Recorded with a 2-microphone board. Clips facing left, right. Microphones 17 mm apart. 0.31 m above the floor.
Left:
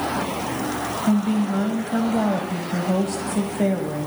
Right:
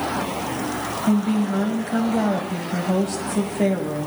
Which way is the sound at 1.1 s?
Centre (ahead or behind).